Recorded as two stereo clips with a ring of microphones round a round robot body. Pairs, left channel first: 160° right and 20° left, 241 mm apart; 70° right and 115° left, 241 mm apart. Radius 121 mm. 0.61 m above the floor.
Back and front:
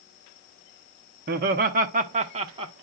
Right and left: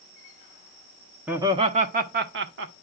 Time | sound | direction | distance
1.3 | laughter | 35° left | 0.8 m